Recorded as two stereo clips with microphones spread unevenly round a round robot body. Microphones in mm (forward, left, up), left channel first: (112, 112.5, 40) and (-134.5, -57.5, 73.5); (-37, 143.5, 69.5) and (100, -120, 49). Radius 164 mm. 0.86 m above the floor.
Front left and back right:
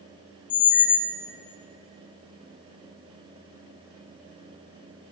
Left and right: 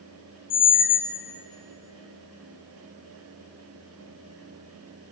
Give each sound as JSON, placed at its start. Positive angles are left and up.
{"t": 0.5, "sound": "a squeak", "azimuth_deg": 50, "distance_m": 0.7}